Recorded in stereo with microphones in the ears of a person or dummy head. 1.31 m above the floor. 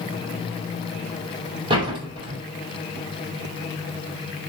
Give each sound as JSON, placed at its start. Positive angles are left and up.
{"t": 1.7, "sound": "a door slam", "side_deg": -30, "distance_m": 4.5}